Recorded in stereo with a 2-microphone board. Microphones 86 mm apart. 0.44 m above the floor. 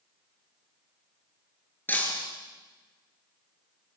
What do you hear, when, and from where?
1.9 s breaking glass: 25° left (ahead or behind), 5 m